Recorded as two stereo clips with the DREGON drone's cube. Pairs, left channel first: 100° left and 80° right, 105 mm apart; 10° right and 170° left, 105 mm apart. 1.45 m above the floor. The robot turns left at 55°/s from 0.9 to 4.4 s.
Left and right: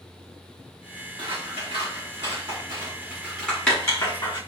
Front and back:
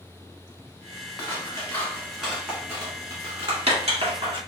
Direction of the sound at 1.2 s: 50° right.